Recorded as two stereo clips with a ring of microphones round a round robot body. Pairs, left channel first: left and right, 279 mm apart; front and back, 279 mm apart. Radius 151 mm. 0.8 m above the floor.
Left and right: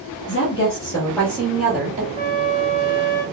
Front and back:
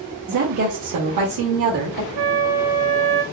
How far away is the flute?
About 1.0 m.